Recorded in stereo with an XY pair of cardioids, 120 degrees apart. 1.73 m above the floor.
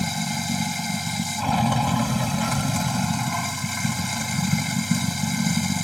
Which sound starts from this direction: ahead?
Running water, at 0.0 s.